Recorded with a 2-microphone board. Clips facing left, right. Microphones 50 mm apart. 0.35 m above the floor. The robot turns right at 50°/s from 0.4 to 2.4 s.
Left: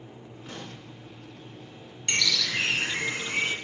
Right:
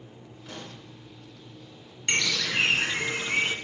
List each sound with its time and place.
0.5 s a pop: 25° left (ahead or behind), 4 m; by 0.8 s 10° left (ahead or behind), 4 m
2.1 s a bird: 25° right (ahead or behind), 0.8 m; by 3.5 s 40° right (ahead or behind), 0.8 m